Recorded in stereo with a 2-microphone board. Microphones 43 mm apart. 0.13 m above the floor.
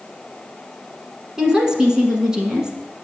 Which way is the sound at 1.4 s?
15° right (ahead or behind).